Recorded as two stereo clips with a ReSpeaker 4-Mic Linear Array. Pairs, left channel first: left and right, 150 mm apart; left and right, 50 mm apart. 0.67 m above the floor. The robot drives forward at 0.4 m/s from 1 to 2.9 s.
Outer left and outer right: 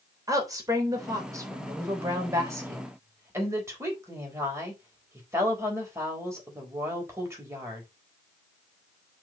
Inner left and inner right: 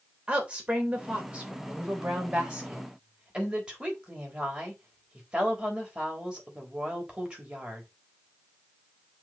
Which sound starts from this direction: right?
A woman speaking, at 0.3 s.